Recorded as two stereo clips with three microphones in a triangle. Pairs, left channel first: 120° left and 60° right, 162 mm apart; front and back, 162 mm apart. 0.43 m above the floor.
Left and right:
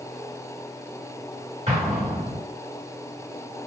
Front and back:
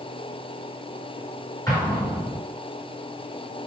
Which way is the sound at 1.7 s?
55° right.